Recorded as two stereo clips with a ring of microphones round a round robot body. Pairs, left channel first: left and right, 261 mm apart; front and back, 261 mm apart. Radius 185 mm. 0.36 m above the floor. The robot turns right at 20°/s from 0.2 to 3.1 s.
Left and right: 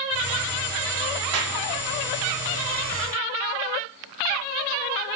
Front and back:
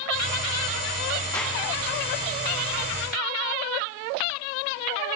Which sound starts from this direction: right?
A clap, at 1.3 s.